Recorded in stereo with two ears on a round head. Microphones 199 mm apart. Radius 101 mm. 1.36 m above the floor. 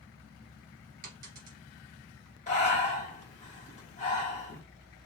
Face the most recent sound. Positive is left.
turn(degrees=30)  # may be behind; listen again after turning